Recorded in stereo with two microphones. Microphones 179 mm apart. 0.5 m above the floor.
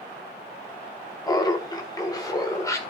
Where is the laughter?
20° left (ahead or behind), 0.9 m; by 2.8 s 15° left (ahead or behind), 1.6 m.